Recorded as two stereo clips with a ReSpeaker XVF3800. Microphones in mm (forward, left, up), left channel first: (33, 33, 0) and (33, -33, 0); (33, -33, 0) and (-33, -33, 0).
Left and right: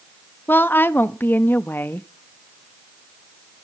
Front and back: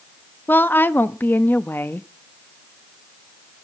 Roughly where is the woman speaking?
Ahead left.